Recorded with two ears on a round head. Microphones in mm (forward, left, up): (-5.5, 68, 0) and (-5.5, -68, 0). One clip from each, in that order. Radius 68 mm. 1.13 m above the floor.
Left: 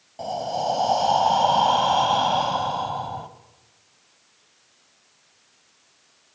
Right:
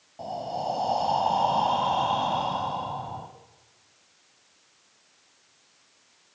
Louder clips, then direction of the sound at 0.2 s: Left 5 dB; 40° left (ahead or behind).